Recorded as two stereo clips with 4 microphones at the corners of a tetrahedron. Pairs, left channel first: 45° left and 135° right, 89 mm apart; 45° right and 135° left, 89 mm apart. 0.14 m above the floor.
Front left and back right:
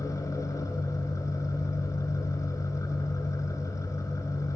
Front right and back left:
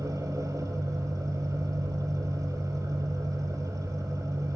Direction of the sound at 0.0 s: 90° left.